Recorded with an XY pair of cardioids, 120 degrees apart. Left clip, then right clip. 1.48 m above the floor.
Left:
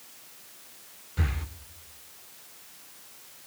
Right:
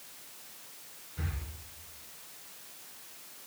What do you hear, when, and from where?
1.2 s breathing: 50° left, 0.9 m